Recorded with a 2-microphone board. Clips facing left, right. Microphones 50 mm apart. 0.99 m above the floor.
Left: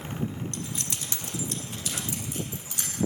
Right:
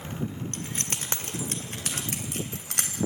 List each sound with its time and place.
0.5 s keys jangling: 40° right (ahead or behind), 1.8 m; by 3.0 s 60° right (ahead or behind), 3.5 m